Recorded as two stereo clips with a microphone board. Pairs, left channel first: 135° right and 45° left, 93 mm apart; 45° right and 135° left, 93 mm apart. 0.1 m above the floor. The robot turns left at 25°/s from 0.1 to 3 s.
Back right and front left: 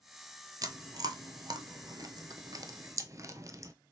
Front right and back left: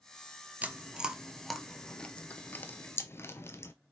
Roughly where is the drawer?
No drawer in this recording.